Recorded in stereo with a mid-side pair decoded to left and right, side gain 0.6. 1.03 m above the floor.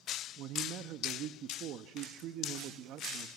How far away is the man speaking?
About 1.1 m.